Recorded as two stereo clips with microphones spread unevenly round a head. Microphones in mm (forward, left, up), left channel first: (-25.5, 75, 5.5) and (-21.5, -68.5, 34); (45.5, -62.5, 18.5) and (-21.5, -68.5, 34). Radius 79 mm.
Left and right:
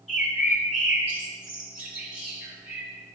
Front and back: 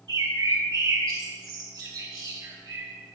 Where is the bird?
170° right, 1.5 m.